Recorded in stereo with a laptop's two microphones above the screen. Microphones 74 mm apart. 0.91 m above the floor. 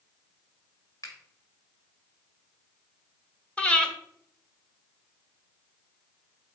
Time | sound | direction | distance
1.0 | a finger snap | 55° left (ahead or behind) | 2 m
3.6 | breathing | 15° left (ahead or behind) | 1.3 m